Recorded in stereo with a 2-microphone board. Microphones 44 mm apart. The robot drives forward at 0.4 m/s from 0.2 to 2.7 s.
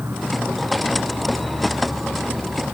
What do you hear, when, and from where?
0.0 s an insect: 55° right (ahead or behind); by 2.8 s 50° right (ahead or behind)